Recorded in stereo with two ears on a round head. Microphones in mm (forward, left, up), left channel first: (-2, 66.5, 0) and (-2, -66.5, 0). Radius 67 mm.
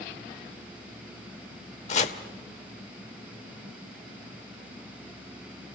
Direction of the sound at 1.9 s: 50° left (ahead or behind).